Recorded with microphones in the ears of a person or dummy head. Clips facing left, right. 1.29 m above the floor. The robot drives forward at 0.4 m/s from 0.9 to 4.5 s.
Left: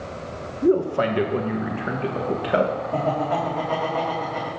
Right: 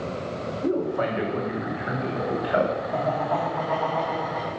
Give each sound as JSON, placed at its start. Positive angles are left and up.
{"t": 0.6, "sound": "a man speaking", "side_deg": 50, "distance_m": 1.1}
{"t": 2.9, "sound": "laughter", "side_deg": 40, "distance_m": 2.0}